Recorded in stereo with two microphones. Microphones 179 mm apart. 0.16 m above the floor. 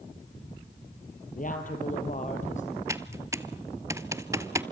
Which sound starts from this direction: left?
A woman speaking, at 1.4 s.